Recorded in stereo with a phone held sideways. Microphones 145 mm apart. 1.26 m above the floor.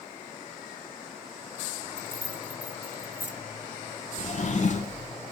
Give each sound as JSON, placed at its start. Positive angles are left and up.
{"t": 2.0, "sound": "keys jangling", "side_deg": -60, "distance_m": 1.3}
{"t": 4.2, "sound": "a drawer", "side_deg": 55, "distance_m": 1.5}